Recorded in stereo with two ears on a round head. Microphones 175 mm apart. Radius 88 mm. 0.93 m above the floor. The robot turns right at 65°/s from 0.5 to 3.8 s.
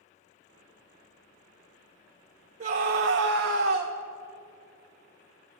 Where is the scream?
140° right, 0.8 m; by 3.9 s 65° right, 0.8 m.